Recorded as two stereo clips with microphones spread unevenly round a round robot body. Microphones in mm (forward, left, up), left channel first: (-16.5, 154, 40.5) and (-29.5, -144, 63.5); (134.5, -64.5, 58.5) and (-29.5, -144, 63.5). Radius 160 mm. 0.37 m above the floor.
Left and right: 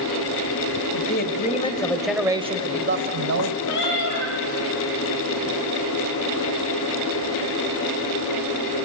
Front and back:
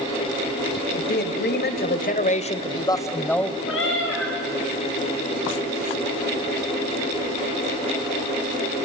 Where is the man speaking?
40° left, 2.5 m; by 3.6 s 60° right, 2.5 m.